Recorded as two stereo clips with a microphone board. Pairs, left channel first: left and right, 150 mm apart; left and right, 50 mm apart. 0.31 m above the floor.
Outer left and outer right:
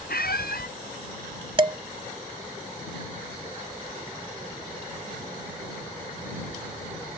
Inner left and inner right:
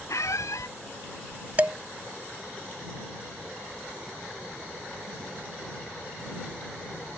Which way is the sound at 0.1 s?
80° left.